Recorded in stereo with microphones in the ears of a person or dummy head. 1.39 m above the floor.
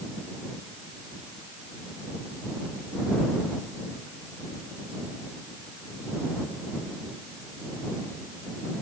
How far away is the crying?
I don't hear crying.